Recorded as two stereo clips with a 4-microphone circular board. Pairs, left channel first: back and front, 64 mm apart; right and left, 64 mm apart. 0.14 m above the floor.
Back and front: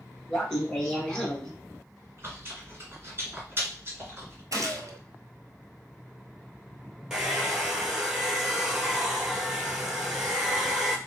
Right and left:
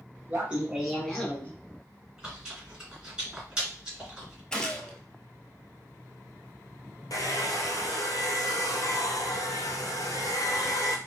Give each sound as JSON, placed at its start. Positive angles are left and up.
{"t": 0.3, "sound": "laughter", "azimuth_deg": 110, "distance_m": 1.1}
{"t": 2.2, "sound": "chewing", "azimuth_deg": 20, "distance_m": 2.0}
{"t": 4.5, "sound": "a gunshot", "azimuth_deg": -15, "distance_m": 1.0}
{"t": 7.1, "sound": "a hair dryer", "azimuth_deg": -80, "distance_m": 0.9}